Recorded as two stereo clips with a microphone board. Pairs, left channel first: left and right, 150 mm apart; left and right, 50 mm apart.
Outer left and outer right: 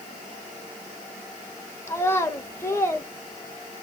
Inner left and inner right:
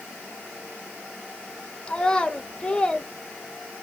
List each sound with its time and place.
1.9 s a child speaking: 20° left (ahead or behind), 1.2 m